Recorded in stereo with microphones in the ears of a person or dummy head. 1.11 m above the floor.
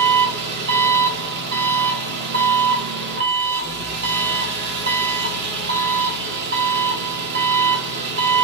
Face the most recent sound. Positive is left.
turn(degrees=-70)  # may be behind; listen again after turning